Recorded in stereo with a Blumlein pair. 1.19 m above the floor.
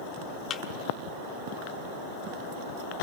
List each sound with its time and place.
0.5 s a thud: 30° left, 1.5 m